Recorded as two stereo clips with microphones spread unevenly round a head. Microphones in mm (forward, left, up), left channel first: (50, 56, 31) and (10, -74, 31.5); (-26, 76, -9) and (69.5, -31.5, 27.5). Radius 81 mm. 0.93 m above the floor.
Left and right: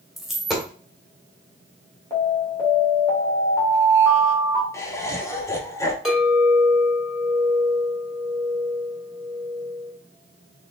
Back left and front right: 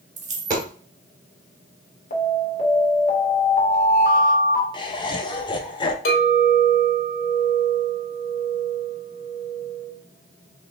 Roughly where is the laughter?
Behind left.